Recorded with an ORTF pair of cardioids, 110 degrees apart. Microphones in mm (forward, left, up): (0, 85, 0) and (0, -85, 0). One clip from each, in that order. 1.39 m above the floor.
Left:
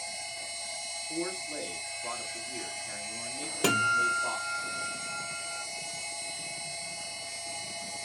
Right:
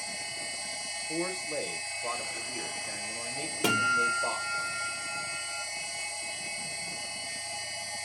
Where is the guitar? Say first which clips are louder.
Even; 15° left, 1.3 m.